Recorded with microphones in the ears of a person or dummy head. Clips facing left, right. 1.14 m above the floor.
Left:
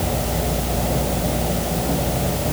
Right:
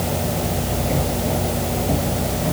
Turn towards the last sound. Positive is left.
No sound to turn to.